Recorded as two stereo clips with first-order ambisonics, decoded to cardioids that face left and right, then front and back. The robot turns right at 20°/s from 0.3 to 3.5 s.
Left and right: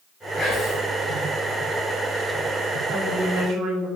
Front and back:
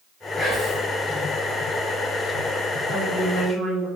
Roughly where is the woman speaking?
Behind right.